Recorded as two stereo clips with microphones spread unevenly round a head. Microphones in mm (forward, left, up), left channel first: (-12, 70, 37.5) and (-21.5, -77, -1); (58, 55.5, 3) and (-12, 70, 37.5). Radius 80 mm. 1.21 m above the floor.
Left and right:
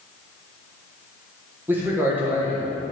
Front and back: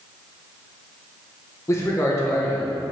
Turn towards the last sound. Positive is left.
turn(degrees=-25)